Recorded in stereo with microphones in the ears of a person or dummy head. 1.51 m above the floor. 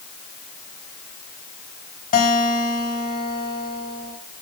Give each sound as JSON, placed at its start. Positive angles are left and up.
{"t": 2.1, "sound": "a guitar", "side_deg": 40, "distance_m": 3.0}